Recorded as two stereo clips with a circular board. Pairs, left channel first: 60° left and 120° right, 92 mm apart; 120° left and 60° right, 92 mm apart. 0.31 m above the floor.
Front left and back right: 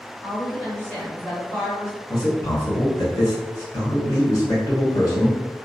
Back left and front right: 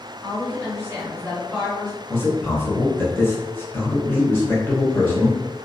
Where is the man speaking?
70° left, 1.4 m.